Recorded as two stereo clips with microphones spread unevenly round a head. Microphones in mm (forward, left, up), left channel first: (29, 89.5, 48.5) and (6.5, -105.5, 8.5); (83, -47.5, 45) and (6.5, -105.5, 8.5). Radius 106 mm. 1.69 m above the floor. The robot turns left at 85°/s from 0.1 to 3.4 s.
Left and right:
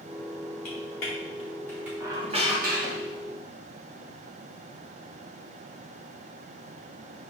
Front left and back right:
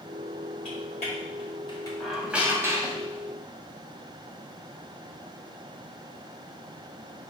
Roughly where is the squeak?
Ahead.